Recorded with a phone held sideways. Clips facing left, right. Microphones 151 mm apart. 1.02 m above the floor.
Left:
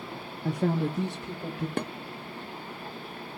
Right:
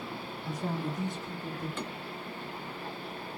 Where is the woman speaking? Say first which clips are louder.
Left 8 dB; 60° left (ahead or behind), 0.5 m; by 1.7 s 80° left, 1.8 m.